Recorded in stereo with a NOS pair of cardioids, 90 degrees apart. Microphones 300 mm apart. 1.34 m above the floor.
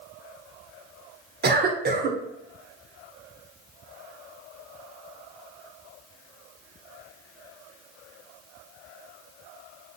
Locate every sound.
1.4 s a cough: 35° right, 1.0 m